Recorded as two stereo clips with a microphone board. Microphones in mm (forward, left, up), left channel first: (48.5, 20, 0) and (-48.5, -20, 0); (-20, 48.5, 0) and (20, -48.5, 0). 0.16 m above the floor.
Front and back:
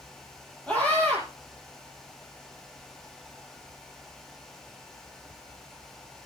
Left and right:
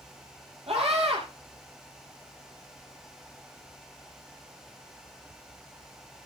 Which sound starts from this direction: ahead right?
A scream, at 0.7 s.